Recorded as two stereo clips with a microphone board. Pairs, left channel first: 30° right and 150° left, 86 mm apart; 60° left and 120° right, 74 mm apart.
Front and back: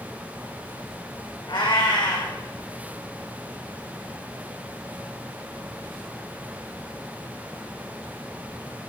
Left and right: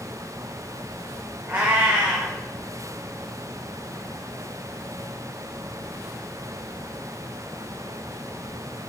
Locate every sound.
1.5 s a cat meowing: 50° right, 2 m